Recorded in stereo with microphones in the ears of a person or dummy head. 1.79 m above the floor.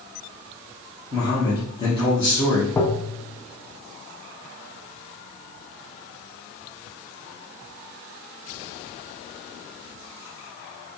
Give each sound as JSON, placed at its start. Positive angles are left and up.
{"t": 1.1, "sound": "a man speaking", "side_deg": 25, "distance_m": 1.0}
{"t": 2.8, "sound": "tapping", "side_deg": 15, "distance_m": 0.5}